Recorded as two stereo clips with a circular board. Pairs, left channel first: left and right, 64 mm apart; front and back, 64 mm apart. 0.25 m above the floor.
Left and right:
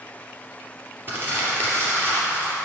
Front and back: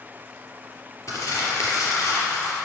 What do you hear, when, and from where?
1.1 s crumpling: 35° right, 3 m